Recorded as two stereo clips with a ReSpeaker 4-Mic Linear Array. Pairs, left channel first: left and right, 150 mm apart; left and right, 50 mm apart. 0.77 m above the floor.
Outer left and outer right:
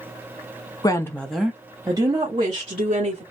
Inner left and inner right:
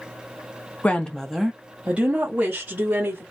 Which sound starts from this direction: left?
A woman speaking, at 0.8 s.